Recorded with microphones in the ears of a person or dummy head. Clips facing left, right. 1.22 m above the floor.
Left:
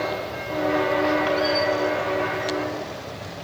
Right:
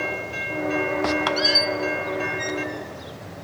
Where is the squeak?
60° right (ahead or behind), 1.2 m.